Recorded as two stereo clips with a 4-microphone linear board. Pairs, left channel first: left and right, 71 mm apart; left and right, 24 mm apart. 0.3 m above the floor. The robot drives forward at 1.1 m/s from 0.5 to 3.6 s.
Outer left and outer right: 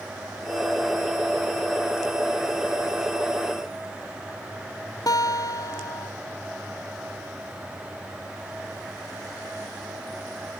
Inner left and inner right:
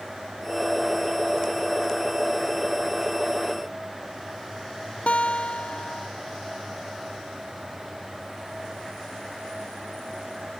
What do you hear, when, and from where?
5.1 s a guitar: 60° left (ahead or behind), 0.6 m